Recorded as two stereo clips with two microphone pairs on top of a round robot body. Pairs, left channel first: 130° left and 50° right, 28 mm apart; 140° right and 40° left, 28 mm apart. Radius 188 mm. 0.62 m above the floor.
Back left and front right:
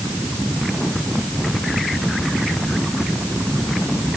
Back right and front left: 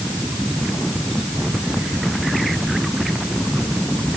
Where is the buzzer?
I don't hear a buzzer.